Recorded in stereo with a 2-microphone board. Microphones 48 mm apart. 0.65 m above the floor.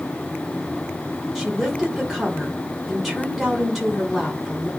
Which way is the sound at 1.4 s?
10° right (ahead or behind).